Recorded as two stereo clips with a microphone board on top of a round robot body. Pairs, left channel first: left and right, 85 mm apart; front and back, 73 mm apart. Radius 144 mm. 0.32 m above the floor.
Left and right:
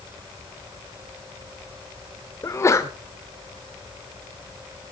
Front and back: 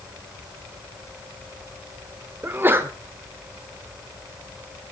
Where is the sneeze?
130° left, 1.3 m.